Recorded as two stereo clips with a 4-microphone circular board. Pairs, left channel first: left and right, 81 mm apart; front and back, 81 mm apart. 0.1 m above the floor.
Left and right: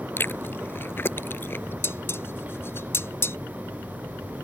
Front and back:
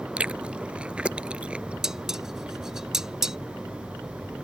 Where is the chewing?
115° left.